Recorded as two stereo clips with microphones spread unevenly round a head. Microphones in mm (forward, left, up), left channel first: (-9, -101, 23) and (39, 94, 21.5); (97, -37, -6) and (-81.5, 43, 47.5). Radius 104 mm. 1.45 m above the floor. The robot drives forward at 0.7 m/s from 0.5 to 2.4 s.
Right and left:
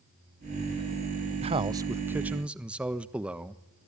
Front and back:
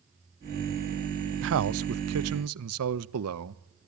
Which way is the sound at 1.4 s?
140° left.